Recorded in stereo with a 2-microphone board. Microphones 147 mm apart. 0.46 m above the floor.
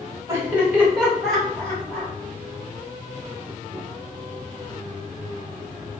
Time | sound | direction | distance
0.3 | laughter | 20° right (ahead or behind) | 1.5 m